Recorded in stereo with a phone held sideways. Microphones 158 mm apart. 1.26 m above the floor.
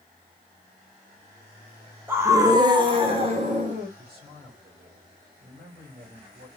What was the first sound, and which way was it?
A scream, 15° right (ahead or behind).